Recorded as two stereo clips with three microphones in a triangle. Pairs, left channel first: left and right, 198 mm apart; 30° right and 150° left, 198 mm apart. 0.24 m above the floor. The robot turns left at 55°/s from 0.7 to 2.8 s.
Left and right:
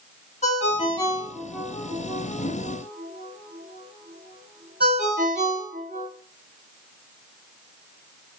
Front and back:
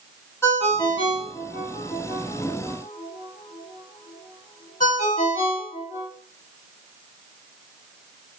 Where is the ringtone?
45° left, 1.2 m; by 6.1 s 70° right, 1.2 m.